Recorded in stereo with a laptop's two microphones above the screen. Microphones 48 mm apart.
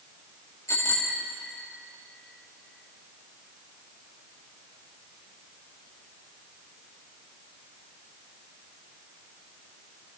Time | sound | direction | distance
0.7 | a bicycle bell | 85° left | 2 m